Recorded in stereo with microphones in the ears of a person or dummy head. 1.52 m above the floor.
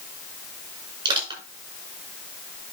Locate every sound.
1.1 s crushing: 25° right (ahead or behind), 6 m